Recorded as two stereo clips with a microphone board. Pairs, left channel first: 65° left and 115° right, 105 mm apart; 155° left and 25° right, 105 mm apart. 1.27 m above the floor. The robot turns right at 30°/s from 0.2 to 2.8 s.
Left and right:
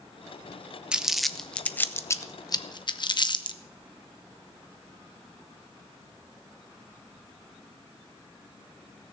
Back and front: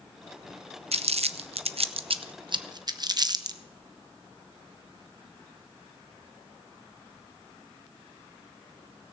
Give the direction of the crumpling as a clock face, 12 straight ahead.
1 o'clock.